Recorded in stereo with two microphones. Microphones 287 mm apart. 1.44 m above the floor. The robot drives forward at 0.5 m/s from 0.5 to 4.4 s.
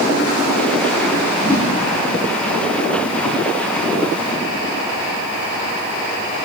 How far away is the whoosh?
About 3 m.